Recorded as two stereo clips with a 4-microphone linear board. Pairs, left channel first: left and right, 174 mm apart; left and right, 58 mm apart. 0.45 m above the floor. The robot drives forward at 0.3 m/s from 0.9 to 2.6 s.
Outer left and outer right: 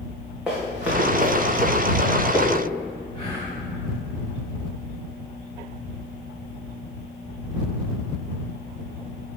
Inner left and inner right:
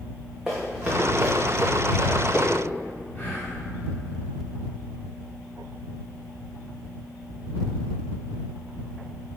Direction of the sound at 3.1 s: 30° left (ahead or behind).